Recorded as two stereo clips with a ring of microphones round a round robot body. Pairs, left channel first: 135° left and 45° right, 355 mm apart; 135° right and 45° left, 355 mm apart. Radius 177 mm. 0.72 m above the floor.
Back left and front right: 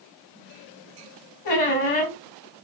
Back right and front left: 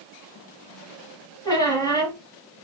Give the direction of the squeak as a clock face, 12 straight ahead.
7 o'clock.